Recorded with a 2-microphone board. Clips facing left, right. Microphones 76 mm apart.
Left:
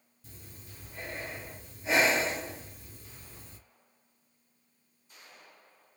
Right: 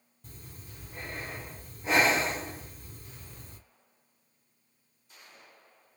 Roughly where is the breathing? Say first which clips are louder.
Right 2 dB; right.